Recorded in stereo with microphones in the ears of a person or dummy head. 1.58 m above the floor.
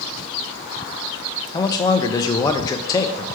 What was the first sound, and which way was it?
A man speaking, 25° left (ahead or behind).